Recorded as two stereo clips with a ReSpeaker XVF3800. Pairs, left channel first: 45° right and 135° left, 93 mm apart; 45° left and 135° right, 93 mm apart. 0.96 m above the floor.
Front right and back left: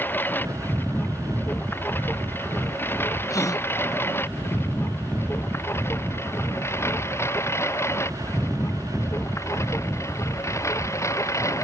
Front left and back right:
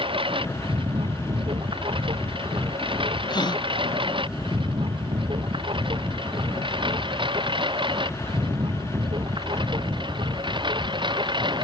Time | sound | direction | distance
0.0 | a lawn mower | 115° right | ?
3.3 | a gasp | 10° left | ?